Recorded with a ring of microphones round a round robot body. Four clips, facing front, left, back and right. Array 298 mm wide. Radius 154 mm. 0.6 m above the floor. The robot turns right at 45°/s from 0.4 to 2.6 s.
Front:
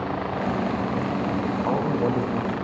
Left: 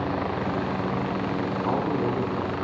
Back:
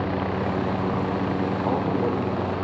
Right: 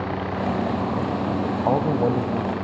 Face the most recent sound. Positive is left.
turn(degrees=-40)